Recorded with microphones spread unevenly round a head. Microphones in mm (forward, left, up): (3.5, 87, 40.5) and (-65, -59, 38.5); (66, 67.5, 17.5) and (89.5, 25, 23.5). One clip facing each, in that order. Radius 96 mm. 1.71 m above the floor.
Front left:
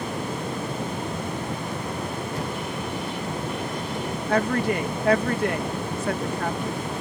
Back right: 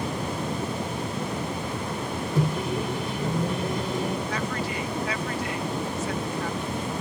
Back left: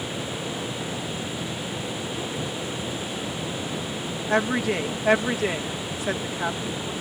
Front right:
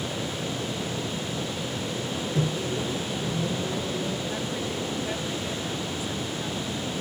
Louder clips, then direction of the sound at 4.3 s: Front left 7 dB, back left 8 dB; 105° left.